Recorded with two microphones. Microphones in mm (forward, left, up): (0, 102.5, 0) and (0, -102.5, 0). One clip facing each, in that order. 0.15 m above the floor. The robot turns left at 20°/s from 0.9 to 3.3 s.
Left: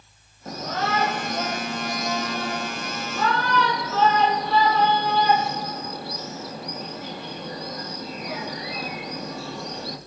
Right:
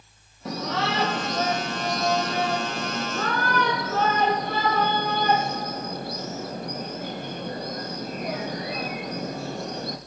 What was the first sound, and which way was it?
A shout, 75° right (ahead or behind).